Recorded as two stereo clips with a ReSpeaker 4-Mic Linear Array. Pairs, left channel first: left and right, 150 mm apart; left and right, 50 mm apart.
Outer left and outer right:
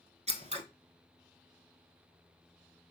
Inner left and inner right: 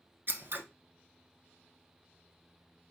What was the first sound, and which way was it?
Scissors, 45° right (ahead or behind).